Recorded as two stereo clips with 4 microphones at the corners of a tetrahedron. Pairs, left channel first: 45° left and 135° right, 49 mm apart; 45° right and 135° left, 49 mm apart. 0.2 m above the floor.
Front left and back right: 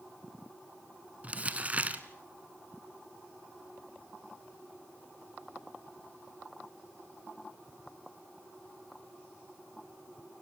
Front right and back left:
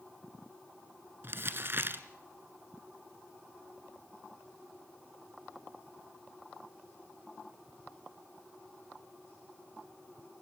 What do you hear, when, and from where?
1.2 s crumpling: 170° left, 1.0 m